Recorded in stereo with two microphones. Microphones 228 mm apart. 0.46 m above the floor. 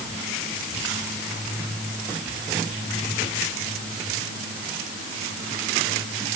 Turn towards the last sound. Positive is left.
No sound to turn to.